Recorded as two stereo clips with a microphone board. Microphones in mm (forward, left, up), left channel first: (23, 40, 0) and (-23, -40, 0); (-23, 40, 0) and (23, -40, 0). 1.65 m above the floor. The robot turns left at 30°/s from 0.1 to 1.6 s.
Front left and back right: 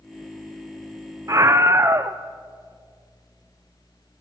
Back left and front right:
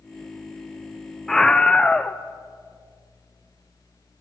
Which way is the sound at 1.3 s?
155° right.